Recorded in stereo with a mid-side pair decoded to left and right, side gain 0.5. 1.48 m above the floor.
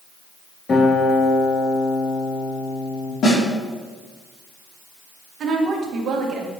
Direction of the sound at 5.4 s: 55° right.